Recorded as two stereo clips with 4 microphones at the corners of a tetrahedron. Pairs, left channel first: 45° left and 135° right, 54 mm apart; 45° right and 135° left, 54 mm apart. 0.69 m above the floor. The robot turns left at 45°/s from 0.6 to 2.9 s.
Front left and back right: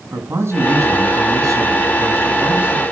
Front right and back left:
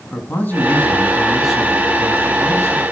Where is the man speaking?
100° right, 6.5 m; by 2.8 s 160° left, 6.5 m.